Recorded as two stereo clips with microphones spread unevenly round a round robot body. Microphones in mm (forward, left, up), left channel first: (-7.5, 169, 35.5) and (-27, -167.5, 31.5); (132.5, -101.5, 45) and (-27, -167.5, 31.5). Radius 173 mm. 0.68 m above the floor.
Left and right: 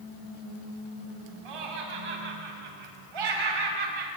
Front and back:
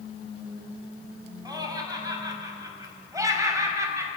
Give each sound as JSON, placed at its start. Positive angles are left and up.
{"t": 1.4, "sound": "laughter", "azimuth_deg": -90, "distance_m": 6.0}